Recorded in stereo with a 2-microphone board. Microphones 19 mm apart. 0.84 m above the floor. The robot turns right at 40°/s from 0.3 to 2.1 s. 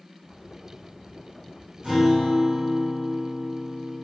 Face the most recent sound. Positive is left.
turn(degrees=-80)